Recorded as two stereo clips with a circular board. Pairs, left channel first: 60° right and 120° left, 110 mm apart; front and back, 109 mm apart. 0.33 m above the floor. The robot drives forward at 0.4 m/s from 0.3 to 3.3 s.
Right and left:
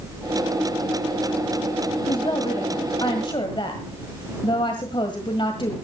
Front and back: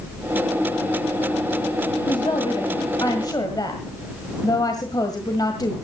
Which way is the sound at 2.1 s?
30° right.